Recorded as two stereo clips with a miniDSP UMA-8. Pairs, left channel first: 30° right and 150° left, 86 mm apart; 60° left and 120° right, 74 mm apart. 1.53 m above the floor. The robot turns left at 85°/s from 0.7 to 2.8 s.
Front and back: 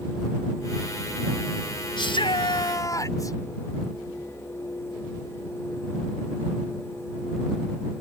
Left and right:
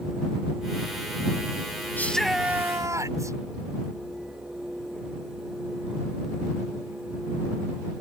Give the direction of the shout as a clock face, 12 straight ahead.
12 o'clock.